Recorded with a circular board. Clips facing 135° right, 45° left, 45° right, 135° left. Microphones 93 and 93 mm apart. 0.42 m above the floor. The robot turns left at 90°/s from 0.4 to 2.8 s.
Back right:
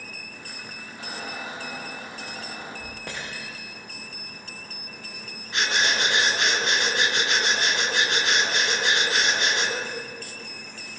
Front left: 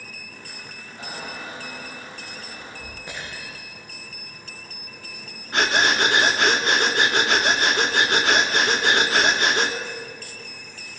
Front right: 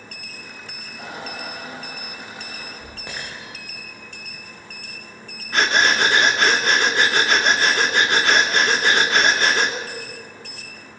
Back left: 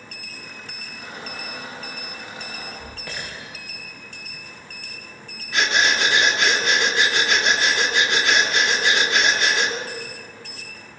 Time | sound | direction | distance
1.0 | a squeak | 10° right | 8.5 m
3.1 | breaking glass | 110° right | 10 m
5.5 | breathing | straight ahead | 2.5 m